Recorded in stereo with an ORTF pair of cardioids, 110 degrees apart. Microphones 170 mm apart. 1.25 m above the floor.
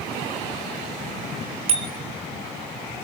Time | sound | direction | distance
1.7 | a bicycle bell | 35° right | 2.5 m